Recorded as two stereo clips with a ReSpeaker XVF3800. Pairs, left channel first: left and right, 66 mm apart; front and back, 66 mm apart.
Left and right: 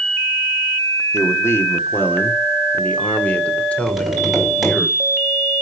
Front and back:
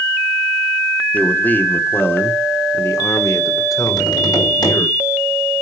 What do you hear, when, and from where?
1.1 s a man speaking: 60° left, 1.7 m; by 4.9 s 15° left, 3 m
3.9 s tapping: 5° right, 6 m